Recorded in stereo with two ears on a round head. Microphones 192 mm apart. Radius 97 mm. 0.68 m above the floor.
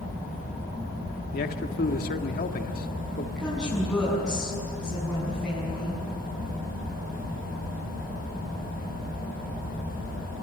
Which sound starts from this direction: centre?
A woman speaking, at 3.4 s.